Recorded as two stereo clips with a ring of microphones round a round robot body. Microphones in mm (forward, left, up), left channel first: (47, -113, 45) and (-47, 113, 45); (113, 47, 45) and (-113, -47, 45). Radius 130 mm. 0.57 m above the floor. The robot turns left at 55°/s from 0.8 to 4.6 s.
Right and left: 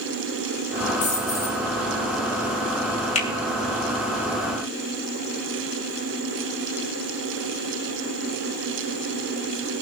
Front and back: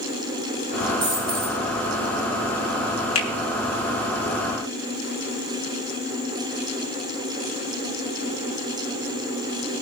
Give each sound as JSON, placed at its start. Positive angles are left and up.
{"t": 1.0, "sound": "a dropped coin", "azimuth_deg": -125, "distance_m": 6.0}
{"t": 3.1, "sound": "a finger snap", "azimuth_deg": -5, "distance_m": 2.5}